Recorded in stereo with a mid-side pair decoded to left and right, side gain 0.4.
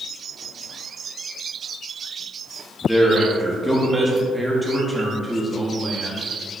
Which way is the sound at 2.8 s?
Straight ahead.